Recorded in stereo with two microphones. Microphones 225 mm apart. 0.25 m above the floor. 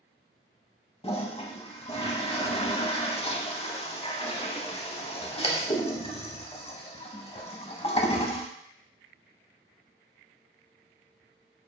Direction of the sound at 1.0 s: 25° left (ahead or behind).